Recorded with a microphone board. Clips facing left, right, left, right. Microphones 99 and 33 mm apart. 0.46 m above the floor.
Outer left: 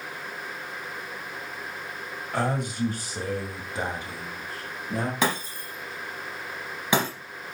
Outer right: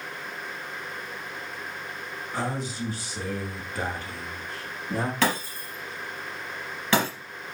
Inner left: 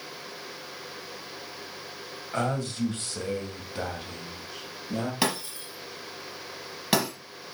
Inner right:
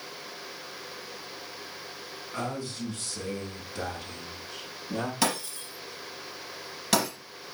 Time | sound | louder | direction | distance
2.3 | a man speaking | outer left 4 dB, inner left 5 dB | 65° left (ahead or behind) | 2.5 m
5.2 | breaking glass | outer right 1 dB, even | 15° left (ahead or behind) | 4 m